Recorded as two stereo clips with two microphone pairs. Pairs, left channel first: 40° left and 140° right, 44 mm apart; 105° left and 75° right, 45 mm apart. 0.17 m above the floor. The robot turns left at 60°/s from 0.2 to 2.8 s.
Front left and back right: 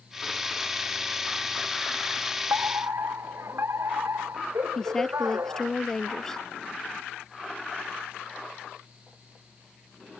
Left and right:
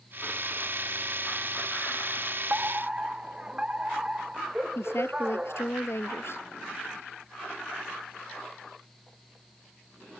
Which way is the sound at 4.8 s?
120° left.